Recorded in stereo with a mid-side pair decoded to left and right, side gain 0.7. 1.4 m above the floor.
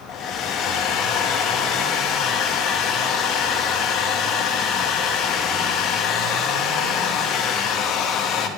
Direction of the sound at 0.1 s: 50° left.